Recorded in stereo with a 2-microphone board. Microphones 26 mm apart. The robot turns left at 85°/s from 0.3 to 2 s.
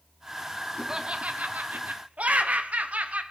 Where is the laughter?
20° right, 1.1 m; by 3.2 s 110° right, 1.1 m.